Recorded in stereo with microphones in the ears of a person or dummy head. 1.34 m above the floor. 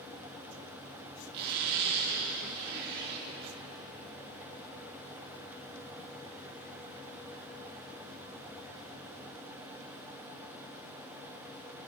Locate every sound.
1.3 s a zipper: 65° right (ahead or behind), 1.9 m